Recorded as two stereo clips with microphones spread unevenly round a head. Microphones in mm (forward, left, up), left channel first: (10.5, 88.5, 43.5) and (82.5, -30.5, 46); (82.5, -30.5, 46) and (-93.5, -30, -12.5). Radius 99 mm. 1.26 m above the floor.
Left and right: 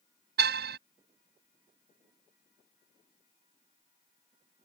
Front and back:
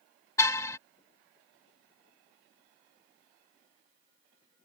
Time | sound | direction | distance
0.4 | a car horn | 70° right | ?